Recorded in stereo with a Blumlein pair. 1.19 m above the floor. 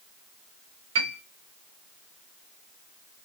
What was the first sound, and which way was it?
A piano, 55° right.